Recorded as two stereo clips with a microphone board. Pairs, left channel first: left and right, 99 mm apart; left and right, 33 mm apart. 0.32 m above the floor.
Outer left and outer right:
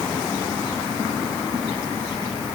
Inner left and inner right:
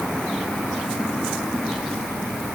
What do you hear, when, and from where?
Only background noise.